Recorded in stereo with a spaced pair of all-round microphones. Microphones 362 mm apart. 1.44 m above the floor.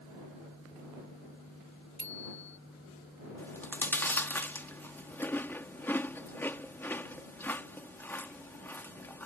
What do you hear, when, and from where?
2.0 s a bicycle bell: 75° left (ahead or behind)
3.4 s chewing: 5° left (ahead or behind)